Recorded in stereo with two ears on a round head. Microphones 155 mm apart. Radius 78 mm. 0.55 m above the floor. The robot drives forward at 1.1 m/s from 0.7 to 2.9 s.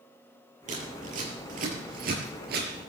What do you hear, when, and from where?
0.7 s scissors: 45° right (ahead or behind), 7 m; by 2.7 s 60° right (ahead or behind), 5.5 m